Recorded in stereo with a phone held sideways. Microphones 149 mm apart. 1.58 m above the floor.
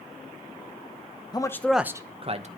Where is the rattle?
I don't hear a rattle.